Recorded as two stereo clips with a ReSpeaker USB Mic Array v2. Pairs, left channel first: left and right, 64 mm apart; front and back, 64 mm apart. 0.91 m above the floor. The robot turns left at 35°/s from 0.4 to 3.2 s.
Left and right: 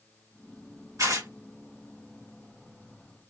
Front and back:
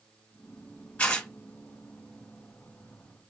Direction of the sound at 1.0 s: 65° right.